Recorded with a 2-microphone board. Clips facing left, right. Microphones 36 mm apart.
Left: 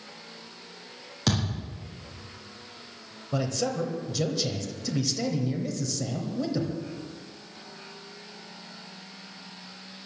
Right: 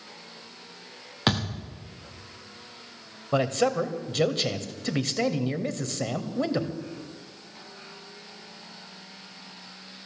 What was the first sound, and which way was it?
A thud, 40° right (ahead or behind).